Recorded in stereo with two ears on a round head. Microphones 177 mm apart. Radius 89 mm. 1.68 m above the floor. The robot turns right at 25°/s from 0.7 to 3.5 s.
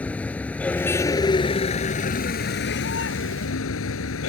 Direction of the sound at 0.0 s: 5° left.